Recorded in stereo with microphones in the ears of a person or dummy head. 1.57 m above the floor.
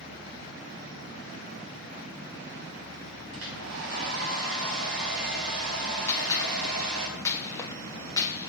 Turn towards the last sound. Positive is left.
turn(degrees=20)  # may be behind; listen again after turning